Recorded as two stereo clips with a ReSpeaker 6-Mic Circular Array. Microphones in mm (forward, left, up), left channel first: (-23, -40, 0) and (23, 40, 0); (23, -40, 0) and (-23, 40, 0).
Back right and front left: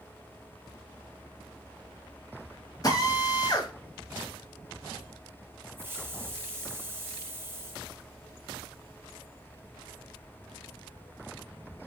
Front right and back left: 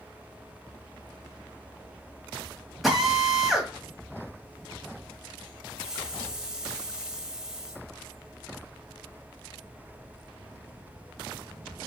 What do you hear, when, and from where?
2.8 s a drill: 150° right, 1.0 m
5.8 s a hiss: 50° left, 0.7 m